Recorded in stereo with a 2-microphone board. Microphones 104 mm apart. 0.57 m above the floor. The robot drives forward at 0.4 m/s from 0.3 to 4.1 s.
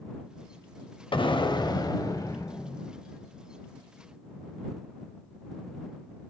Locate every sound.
1.1 s an explosion: 55° left (ahead or behind), 0.7 m; by 2.9 s 30° left (ahead or behind), 1.2 m